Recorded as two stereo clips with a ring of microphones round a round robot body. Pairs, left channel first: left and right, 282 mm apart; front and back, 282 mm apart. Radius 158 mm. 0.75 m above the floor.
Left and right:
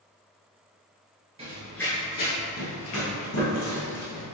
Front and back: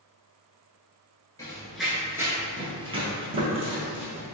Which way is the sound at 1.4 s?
60° right.